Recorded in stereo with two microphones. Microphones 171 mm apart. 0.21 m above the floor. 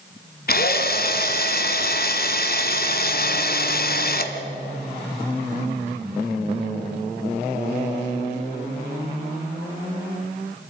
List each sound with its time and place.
0.5 s a drill: 55° left (ahead or behind), 1.2 m